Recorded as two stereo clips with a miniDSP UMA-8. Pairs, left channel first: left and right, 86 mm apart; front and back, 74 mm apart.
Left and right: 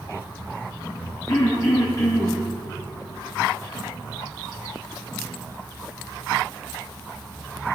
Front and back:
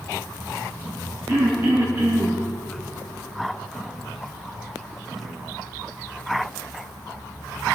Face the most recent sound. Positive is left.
turn(degrees=145)